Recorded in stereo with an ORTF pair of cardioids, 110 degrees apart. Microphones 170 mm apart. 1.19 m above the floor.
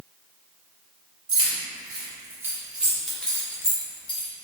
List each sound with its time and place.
1.3 s keys jangling: 30° right, 1.8 m; by 4.3 s 35° left, 1.1 m